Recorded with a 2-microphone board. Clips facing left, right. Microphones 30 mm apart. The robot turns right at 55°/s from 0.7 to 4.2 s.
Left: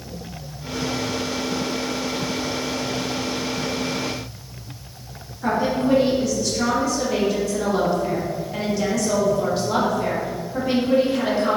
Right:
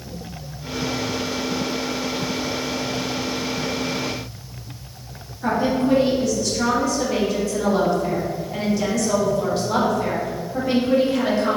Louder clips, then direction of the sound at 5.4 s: Right 1 dB; 5° left (ahead or behind).